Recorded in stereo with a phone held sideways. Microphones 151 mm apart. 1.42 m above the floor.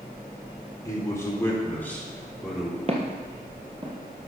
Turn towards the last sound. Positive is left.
turn(degrees=-30)  # may be behind; listen again after turning